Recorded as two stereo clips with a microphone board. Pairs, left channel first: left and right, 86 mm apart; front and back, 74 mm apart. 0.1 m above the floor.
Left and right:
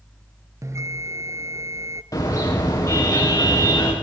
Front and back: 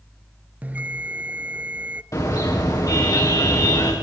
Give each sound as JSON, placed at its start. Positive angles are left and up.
{"t": 0.6, "sound": "a bell", "azimuth_deg": -120, "distance_m": 0.7}
{"t": 2.1, "sound": "a car horn", "azimuth_deg": 40, "distance_m": 6.5}